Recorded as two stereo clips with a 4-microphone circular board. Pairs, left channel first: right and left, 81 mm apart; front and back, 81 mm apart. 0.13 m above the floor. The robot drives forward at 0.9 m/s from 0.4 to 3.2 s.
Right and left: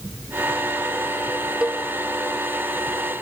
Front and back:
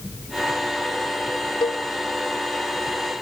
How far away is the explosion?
I don't hear an explosion.